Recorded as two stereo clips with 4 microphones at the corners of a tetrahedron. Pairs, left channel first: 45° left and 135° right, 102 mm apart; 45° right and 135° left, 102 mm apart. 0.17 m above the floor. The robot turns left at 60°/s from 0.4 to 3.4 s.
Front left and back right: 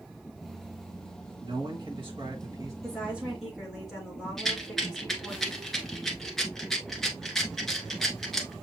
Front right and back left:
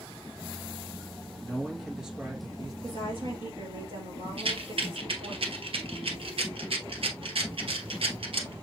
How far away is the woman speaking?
About 3.5 m.